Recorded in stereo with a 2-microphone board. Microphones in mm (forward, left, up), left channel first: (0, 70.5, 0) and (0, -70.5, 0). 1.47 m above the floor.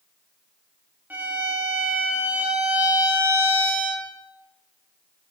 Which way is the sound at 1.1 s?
15° right (ahead or behind).